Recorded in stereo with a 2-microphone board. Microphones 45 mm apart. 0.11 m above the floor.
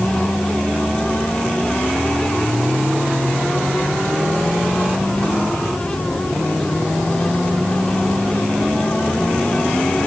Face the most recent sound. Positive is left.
No sound to turn to.